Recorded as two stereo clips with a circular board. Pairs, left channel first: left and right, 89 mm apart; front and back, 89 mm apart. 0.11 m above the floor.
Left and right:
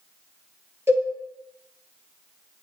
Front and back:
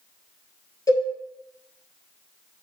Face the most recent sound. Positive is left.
turn(degrees=-35)